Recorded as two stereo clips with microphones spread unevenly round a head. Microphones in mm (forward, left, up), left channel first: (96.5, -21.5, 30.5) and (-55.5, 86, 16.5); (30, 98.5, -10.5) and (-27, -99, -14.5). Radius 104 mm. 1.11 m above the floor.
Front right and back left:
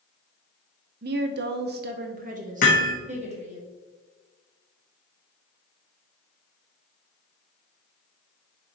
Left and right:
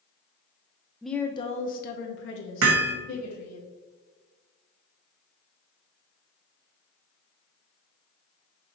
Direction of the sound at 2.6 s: 85° right.